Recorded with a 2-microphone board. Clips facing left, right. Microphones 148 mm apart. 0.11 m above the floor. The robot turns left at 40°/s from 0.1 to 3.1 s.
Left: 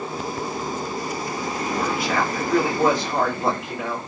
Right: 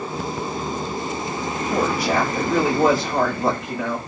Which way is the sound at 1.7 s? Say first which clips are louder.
Right 4 dB; 130° right.